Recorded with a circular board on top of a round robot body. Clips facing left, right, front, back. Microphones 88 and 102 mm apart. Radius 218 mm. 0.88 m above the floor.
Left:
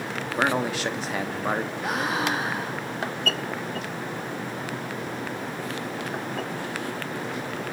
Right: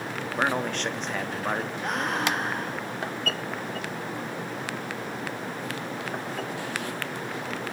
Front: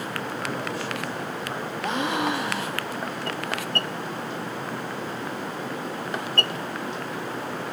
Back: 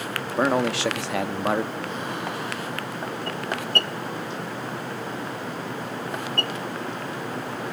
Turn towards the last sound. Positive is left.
turn(degrees=5)